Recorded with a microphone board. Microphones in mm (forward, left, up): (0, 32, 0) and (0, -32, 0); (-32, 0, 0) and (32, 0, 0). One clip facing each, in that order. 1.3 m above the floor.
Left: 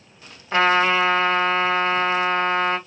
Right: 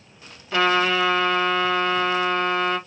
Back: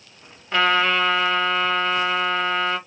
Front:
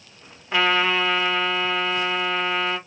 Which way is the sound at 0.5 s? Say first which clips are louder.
Left 2 dB, back 1 dB; 75° left.